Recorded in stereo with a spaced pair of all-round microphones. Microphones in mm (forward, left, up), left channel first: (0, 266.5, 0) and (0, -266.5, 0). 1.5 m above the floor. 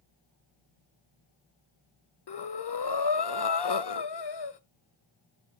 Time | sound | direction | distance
2.3 | breathing | 50° left (ahead or behind) | 0.6 m